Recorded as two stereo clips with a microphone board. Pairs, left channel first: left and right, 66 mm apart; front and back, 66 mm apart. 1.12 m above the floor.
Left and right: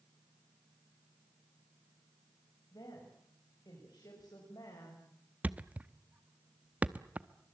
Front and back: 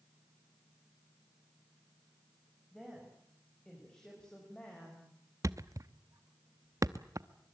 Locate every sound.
2.7 s a woman speaking: 90° left, 6.5 m; by 5.0 s 70° left, 5.5 m
5.4 s a thud: 155° right, 0.8 m